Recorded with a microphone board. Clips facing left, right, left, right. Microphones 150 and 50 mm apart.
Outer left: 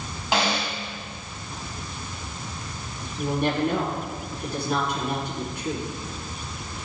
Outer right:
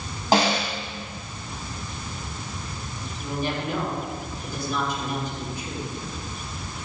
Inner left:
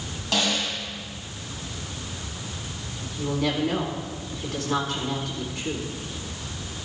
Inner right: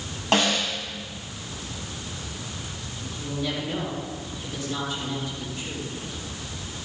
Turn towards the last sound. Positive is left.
turn(degrees=80)